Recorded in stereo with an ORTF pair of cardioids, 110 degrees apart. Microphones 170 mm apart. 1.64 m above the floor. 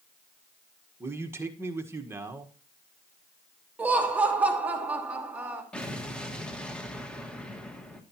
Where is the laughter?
10° right, 2.5 m.